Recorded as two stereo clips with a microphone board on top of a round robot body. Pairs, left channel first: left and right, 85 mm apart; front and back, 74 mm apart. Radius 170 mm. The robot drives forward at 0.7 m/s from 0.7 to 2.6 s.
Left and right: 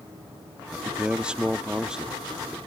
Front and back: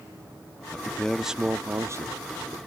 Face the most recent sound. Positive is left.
turn(degrees=-175)